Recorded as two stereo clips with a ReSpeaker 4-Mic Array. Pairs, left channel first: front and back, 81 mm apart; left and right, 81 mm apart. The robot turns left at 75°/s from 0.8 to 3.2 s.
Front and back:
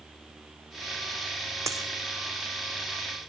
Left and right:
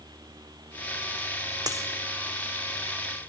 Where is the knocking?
No knocking in this recording.